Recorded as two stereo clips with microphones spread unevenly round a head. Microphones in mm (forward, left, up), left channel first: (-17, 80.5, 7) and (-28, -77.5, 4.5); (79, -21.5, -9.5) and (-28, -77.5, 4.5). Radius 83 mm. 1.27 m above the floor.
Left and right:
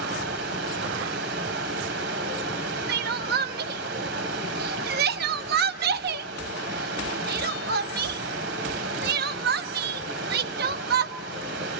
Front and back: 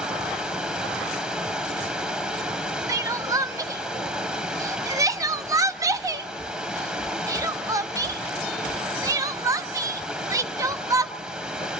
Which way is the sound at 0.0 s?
75° right.